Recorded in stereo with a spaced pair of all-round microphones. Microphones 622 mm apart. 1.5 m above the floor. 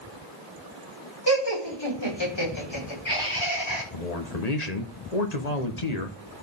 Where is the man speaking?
85° left, 1.6 m.